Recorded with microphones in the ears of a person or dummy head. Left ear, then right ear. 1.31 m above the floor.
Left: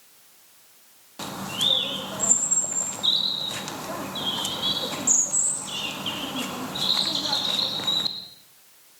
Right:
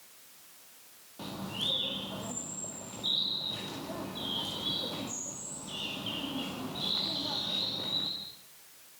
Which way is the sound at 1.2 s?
55° left (ahead or behind).